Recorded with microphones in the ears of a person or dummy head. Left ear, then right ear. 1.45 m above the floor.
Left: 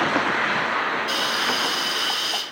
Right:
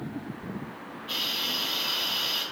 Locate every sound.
1.1 s a hiss: 70° left (ahead or behind), 3 m